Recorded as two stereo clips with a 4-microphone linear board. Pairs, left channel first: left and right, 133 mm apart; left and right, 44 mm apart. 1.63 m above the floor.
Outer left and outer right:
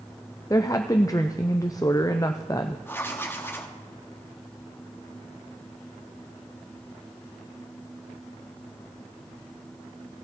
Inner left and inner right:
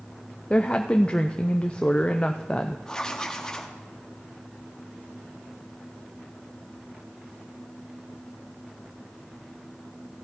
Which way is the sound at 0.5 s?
25° left (ahead or behind).